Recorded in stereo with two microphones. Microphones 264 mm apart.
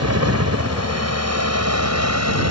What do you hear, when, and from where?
0.0 s a helicopter: 65° right (ahead or behind); by 2.5 s 75° right (ahead or behind)